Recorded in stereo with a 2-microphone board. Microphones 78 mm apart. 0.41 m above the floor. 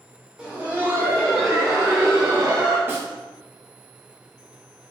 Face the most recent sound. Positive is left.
turn(degrees=-25)  # may be behind; listen again after turning